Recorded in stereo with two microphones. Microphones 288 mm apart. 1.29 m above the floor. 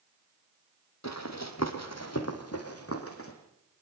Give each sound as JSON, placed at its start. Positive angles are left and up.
{"t": 1.0, "sound": "running footsteps", "side_deg": 65, "distance_m": 3.0}